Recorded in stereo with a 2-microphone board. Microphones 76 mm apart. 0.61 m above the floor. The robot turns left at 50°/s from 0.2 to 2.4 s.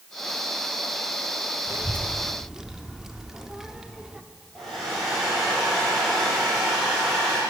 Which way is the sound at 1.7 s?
40° right (ahead or behind).